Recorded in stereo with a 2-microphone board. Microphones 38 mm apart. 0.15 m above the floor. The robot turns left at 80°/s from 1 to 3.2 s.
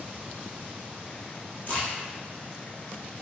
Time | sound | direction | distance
1.7 | a crack | 45° left (ahead or behind) | 1.3 m